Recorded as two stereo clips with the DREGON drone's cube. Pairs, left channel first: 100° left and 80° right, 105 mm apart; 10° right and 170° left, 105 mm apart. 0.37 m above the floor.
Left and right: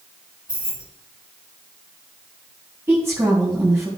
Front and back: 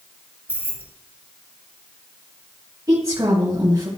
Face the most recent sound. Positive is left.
turn(degrees=-140)